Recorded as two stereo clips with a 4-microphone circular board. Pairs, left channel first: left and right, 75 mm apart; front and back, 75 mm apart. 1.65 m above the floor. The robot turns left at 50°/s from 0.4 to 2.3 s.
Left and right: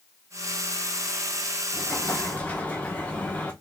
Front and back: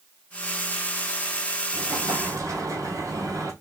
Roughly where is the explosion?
Behind.